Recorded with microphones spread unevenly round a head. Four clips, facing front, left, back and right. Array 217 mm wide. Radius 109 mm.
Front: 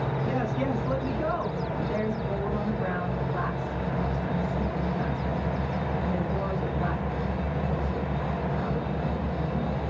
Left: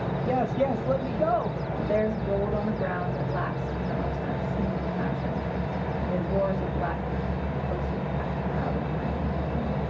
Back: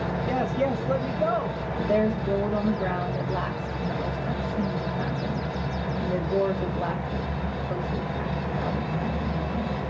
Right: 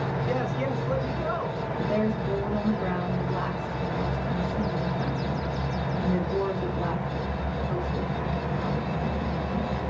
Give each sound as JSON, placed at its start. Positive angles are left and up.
{"t": 0.2, "sound": "a man speaking", "azimuth_deg": 130, "distance_m": 2.0}
{"t": 1.8, "sound": "a woman speaking", "azimuth_deg": 155, "distance_m": 2.5}